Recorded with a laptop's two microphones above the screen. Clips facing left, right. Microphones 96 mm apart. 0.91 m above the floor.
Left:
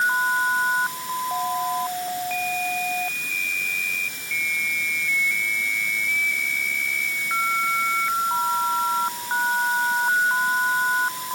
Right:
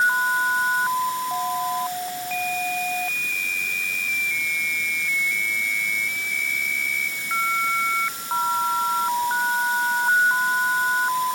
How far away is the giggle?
No giggle in this recording.